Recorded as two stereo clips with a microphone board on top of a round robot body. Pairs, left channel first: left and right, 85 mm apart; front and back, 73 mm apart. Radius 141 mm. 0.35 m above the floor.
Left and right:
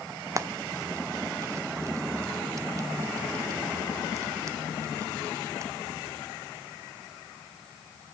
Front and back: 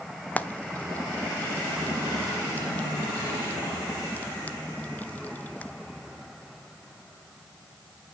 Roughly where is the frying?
Ahead right.